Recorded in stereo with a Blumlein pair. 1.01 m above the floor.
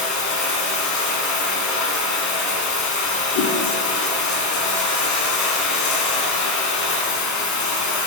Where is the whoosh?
50° left, 5.5 m.